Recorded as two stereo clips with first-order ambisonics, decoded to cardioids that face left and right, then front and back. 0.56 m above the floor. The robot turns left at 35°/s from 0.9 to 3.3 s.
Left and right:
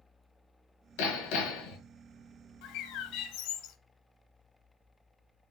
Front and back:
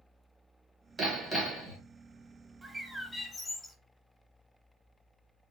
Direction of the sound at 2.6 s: 95° left.